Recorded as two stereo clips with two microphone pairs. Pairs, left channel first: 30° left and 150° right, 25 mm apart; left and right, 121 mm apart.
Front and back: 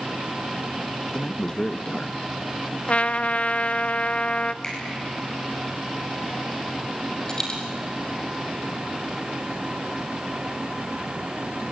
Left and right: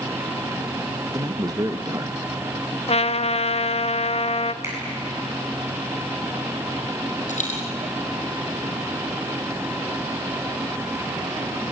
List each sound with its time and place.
1.1 s a man speaking: 30° right, 1.0 m
2.9 s a trumpet: 60° left, 0.7 m
4.6 s a finger snap: 20° right, 9 m
7.3 s a dropped coin: 95° left, 5 m